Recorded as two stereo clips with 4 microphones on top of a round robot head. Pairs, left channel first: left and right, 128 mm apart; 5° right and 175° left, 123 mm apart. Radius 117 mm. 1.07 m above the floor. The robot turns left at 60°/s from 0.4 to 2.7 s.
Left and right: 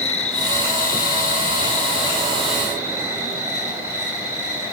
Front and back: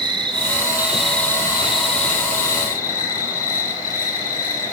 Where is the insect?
125° left, 5.5 m; by 4.7 s 15° right, 5.5 m.